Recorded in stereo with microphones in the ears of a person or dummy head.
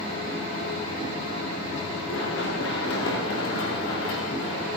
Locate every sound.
2.1 s running footsteps: 80° left, 8 m